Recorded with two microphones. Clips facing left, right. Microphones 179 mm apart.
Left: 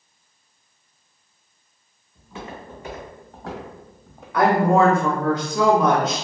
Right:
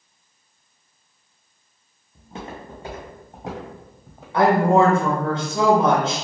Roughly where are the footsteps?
Right.